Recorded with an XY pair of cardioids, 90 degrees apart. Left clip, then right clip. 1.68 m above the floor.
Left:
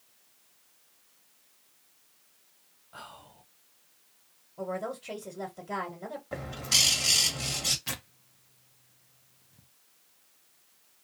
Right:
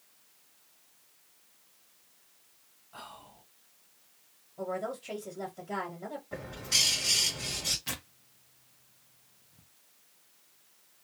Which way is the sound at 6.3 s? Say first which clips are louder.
Left 3 dB; 60° left.